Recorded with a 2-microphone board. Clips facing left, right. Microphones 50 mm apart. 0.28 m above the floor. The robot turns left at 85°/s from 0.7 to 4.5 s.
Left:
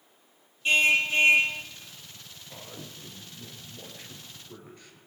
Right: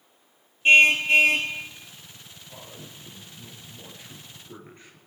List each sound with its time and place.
0.7 s a car horn: 40° right, 3 m; by 1.5 s 110° right, 3 m
2.5 s a man speaking: 145° left, 5.5 m; by 5.0 s 25° right, 5.5 m